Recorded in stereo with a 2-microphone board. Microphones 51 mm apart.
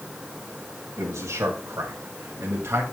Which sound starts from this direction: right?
A man speaking, at 1.0 s.